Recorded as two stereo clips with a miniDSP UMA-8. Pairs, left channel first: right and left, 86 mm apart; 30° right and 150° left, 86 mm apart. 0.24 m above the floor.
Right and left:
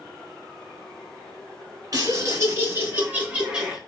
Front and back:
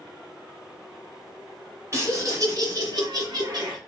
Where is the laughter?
110° left, 1.4 m; by 3.8 s 175° left, 1.7 m.